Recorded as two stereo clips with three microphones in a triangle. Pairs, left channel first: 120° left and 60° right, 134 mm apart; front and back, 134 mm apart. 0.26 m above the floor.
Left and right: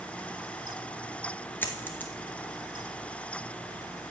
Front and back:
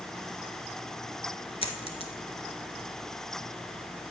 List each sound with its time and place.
1.6 s a dropped coin: 45° left, 1.2 m